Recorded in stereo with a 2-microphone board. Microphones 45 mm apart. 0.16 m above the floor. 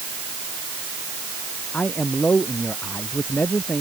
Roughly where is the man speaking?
Left.